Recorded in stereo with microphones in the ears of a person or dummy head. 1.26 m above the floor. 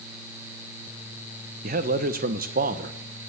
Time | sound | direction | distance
1.6 | a man speaking | 45° right (ahead or behind) | 1.2 m